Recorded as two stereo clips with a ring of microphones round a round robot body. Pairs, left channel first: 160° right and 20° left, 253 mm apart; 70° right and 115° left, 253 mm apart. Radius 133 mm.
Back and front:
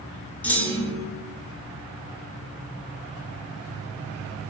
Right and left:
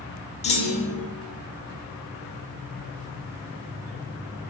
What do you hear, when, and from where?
0.4 s a clunk: 80° right, 0.6 m